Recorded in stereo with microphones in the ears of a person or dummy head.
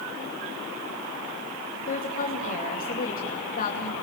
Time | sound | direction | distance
1.9 | a woman speaking | 40° left (ahead or behind) | 2.5 m